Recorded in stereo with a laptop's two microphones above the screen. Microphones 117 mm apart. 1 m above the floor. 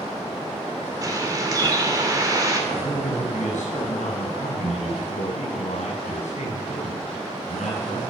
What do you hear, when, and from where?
1.0 s a bird: 30° right (ahead or behind), 1.9 m
2.7 s a man speaking: 85° left, 6.5 m